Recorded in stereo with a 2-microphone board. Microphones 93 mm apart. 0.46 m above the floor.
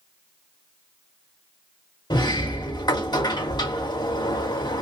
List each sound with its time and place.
2.1 s a sliding door: 50° left (ahead or behind), 2.5 m